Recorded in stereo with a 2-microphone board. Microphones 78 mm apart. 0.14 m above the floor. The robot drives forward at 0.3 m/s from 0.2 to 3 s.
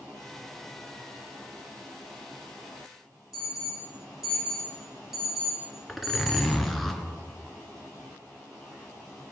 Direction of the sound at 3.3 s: 5° right (ahead or behind).